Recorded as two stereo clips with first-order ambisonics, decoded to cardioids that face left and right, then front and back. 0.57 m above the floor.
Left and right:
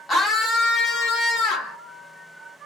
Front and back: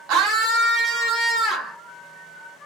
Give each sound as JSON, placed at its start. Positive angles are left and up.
{"t": 0.1, "sound": "a scream", "azimuth_deg": 165, "distance_m": 1.0}